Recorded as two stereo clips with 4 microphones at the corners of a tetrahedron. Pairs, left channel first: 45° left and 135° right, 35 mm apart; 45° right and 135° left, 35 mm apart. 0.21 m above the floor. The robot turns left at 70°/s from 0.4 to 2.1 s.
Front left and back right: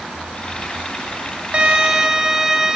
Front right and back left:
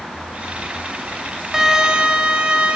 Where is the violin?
160° right, 1.4 m; by 2.8 s 160° left, 1.4 m.